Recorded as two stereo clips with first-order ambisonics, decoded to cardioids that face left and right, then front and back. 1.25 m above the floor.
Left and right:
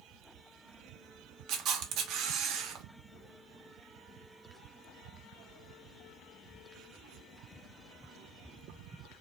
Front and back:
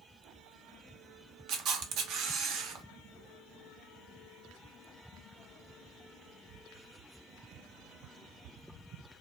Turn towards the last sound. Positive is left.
turn(degrees=-135)